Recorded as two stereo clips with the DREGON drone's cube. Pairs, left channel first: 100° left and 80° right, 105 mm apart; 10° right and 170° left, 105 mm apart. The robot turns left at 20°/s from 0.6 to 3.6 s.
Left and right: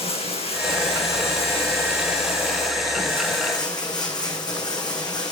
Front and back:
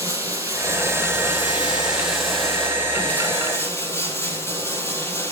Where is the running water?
110° left, 4 m; by 5.3 s 50° left, 4 m.